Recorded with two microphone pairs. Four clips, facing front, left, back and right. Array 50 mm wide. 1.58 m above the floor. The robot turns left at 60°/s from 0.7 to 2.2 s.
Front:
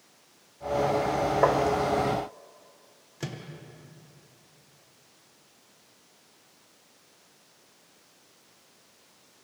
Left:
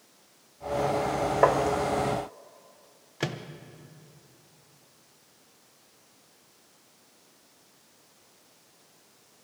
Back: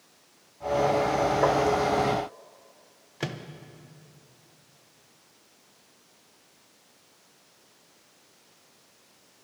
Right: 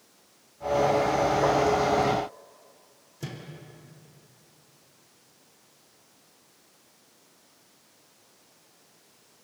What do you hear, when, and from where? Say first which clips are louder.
1.4 s tapping: left 5 dB, front 2 dB; 70° left, 1.1 m; by 1.6 s 60° left, 1.1 m
3.2 s a microwave: left 7 dB, back 4 dB; 115° left, 1.1 m